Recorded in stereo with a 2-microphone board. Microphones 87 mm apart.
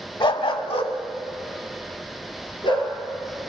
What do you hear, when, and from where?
0.2 s a dog barking: 60° left (ahead or behind), 0.6 m; by 2.9 s 65° left (ahead or behind), 2 m